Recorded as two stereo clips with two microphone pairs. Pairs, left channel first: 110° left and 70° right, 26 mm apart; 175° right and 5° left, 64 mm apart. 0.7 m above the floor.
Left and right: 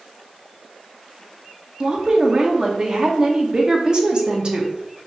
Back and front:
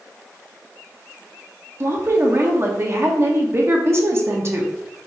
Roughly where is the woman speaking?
Ahead.